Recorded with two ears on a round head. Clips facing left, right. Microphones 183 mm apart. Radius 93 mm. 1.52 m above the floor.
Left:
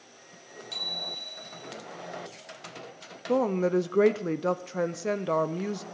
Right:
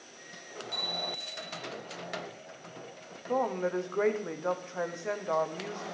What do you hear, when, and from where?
0.7 s a bicycle bell: 60° left (ahead or behind), 4.5 m
3.3 s a woman speaking: 40° left (ahead or behind), 0.6 m